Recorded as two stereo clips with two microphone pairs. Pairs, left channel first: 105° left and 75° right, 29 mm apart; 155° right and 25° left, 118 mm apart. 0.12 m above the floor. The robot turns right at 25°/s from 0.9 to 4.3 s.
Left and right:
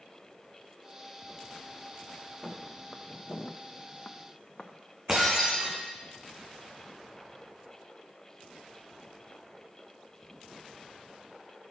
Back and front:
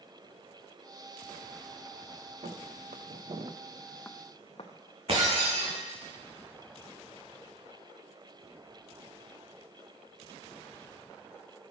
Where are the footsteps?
15° left, 1.1 m; by 5.9 s 165° right, 1.4 m.